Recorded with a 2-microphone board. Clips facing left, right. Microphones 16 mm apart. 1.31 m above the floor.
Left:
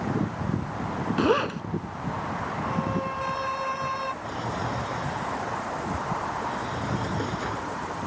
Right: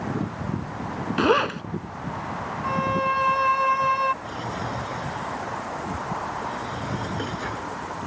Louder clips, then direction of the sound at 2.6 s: Right 8 dB; 50° right (ahead or behind).